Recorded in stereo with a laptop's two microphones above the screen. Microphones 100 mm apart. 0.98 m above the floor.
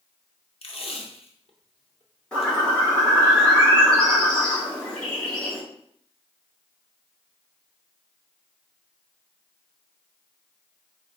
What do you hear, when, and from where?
0.6 s tape being pulled: 60° left (ahead or behind), 0.7 m
2.3 s a bird: 10° left (ahead or behind), 1.0 m